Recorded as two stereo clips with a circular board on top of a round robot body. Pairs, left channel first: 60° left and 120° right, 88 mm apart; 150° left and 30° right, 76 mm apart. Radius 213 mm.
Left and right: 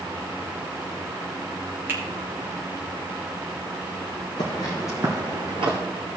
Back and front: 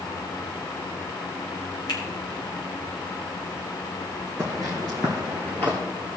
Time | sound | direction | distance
1.9 | a finger snap | 175° left | 3 m
4.4 | footsteps | 80° left | 0.8 m